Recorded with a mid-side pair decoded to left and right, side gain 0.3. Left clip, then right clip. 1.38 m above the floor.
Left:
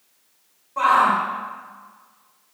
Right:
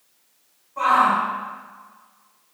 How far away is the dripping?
I don't hear dripping.